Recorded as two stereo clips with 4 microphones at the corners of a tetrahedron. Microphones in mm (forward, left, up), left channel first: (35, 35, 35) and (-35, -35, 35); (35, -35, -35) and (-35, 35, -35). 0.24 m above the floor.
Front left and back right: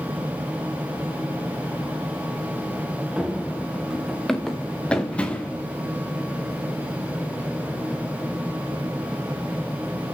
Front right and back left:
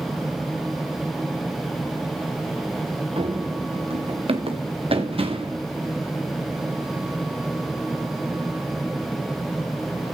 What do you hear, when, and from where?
3.2 s running footsteps: 145° left, 1.7 m; by 5.6 s 120° left, 3 m